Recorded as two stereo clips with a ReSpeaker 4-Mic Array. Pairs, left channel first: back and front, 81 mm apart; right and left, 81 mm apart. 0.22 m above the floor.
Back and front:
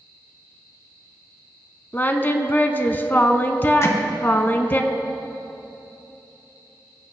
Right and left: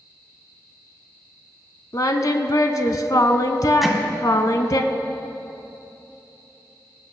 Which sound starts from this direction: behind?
Hammering, at 3.8 s.